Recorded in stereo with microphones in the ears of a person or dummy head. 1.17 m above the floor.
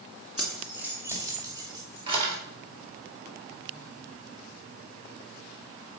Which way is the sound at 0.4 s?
5° right (ahead or behind).